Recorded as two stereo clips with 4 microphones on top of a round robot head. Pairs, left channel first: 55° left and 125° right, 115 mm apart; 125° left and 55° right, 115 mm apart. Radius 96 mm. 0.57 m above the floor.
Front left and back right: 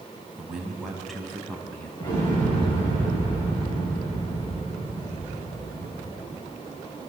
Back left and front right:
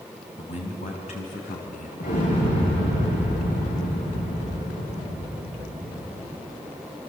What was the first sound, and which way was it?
A man speaking, 155° left.